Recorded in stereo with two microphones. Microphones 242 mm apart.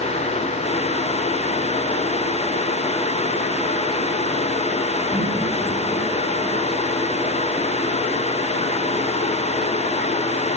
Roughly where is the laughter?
Centre.